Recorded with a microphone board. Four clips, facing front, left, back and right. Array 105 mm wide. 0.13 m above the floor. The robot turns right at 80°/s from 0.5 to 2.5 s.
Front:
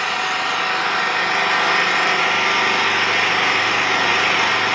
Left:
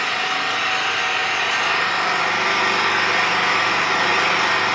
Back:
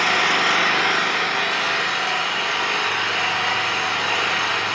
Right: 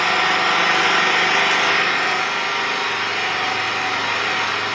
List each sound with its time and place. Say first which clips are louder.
0.0 s an engine running: right 5 dB, back 2 dB; 145° right, 2 m; by 4.8 s 15° left, 2 m